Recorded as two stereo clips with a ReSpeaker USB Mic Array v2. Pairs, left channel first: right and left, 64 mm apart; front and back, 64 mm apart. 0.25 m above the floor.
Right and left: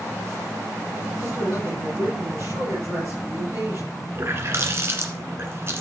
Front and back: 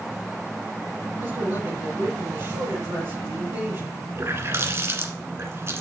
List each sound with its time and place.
1.2 s a man speaking: 140° left, 6 m
4.2 s a running tap: 135° left, 1.6 m